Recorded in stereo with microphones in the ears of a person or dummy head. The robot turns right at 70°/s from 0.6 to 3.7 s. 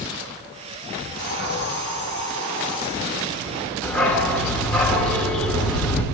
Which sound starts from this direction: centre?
A dog barking, at 3.8 s.